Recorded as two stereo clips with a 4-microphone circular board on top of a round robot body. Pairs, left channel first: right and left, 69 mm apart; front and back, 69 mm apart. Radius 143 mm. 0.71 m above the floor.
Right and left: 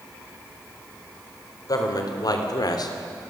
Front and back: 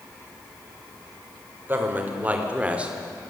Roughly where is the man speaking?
Behind right.